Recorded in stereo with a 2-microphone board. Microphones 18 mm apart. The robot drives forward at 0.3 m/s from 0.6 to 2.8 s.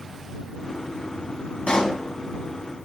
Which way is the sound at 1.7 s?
50° left (ahead or behind).